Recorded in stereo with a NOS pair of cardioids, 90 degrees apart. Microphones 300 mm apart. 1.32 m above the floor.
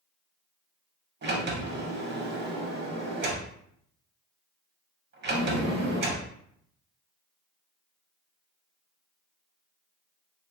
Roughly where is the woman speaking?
I don't hear a woman speaking.